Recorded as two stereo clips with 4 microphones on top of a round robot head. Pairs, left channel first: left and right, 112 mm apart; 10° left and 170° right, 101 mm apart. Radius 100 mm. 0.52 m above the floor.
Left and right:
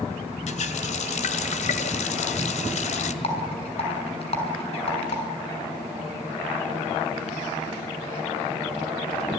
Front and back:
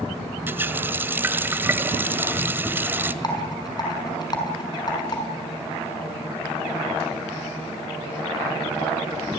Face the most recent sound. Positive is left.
turn(degrees=55)